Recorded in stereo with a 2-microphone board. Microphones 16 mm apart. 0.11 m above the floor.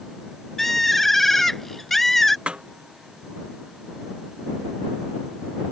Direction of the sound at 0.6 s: 15° left (ahead or behind).